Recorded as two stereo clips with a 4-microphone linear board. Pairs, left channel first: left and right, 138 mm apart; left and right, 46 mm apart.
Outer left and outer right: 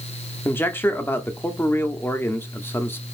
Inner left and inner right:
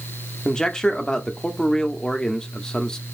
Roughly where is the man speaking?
Centre.